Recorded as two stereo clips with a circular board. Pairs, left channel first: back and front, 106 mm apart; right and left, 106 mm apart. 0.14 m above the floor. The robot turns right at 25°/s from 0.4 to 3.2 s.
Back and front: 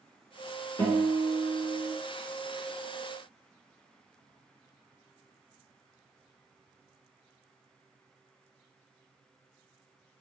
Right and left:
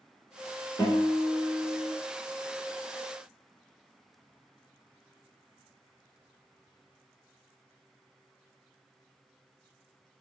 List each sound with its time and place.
0.8 s a guitar: 135° right, 1.2 m; by 1.9 s 110° right, 1.2 m